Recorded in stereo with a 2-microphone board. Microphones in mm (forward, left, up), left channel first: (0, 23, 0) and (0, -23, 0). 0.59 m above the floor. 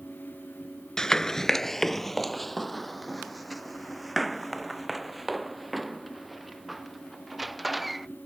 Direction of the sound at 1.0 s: 15° left (ahead or behind).